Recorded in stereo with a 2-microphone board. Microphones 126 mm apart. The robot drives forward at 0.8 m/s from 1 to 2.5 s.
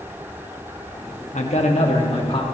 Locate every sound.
1.3 s a man speaking: 70° left (ahead or behind), 1.6 m; by 2.4 s 45° left (ahead or behind), 2 m